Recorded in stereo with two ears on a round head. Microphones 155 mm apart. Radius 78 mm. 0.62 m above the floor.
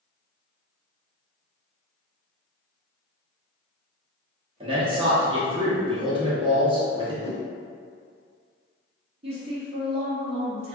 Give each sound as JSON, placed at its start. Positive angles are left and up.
{"t": 4.6, "sound": "a man speaking", "side_deg": -30, "distance_m": 0.9}
{"t": 7.2, "sound": "a whoosh", "side_deg": 40, "distance_m": 0.6}
{"t": 9.2, "sound": "a woman speaking", "side_deg": -35, "distance_m": 1.0}